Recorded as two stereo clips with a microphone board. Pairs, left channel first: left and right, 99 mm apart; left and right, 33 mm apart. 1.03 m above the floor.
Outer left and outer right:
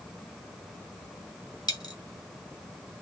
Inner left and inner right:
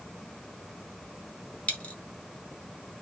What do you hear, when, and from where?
1.7 s a dropped coin: 40° left (ahead or behind), 1.3 m